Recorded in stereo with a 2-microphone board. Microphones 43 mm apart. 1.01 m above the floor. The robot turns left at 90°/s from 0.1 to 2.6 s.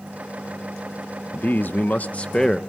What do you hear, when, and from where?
1.3 s a man speaking: 125° left, 1.1 m; by 2.6 s 10° left, 1.1 m